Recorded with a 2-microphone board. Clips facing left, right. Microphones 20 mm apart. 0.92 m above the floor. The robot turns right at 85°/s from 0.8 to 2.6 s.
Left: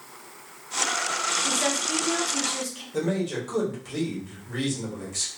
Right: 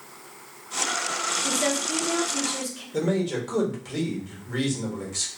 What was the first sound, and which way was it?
A woman speaking, 15° left.